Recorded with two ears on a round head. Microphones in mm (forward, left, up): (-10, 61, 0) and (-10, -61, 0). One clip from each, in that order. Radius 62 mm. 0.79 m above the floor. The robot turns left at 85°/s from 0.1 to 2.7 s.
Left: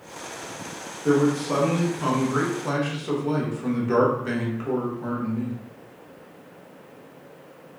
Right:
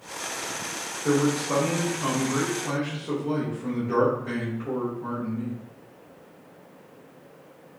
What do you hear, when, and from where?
1.1 s a man speaking: 105° right, 1.0 m; by 5.6 s 115° left, 1.0 m